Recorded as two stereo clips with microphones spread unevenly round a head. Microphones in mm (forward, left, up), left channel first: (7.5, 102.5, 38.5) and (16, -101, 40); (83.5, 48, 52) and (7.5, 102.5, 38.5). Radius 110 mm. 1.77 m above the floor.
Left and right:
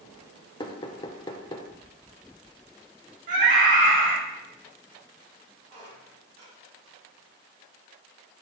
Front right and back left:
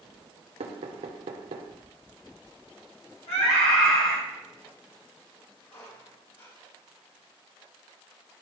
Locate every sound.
0.6 s knocking: 160° left, 0.6 m
3.3 s a scream: 35° right, 3 m
5.7 s a squeak: 30° right, 4 m